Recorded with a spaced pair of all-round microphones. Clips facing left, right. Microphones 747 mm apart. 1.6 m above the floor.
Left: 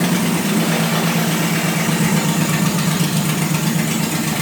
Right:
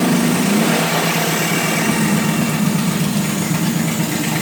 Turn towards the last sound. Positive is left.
No sound to turn to.